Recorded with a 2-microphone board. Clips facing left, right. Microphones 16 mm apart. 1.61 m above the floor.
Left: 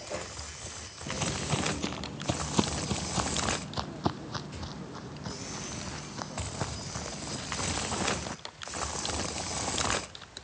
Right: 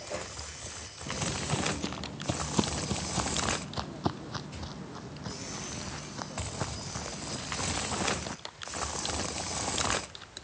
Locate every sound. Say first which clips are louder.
1.1 s footsteps: left 1 dB; 15° left (ahead or behind); by 8.4 s 5° right (ahead or behind)